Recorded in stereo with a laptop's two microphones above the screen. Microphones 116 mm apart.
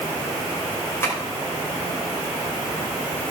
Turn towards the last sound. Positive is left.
turn(degrees=20)  # may be behind; listen again after turning